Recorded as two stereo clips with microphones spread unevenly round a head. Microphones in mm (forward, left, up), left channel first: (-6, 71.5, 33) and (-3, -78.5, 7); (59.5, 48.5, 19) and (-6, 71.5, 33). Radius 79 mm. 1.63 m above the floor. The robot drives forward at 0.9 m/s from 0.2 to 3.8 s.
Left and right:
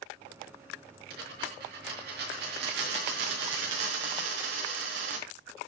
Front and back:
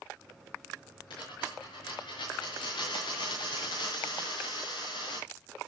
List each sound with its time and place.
1.1 s a dropped coin: 55° right, 6.5 m; by 5.3 s 75° right, 5.5 m